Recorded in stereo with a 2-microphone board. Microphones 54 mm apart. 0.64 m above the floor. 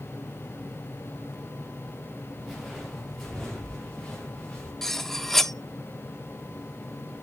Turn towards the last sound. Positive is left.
turn(degrees=5)  # may be behind; listen again after turning